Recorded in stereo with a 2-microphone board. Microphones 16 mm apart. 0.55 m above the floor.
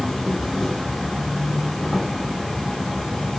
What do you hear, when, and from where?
0.0 s an insect: 40° left (ahead or behind), 5.5 m